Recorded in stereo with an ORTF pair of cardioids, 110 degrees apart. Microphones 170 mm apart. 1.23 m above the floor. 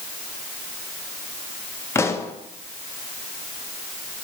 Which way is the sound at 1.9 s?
15° left.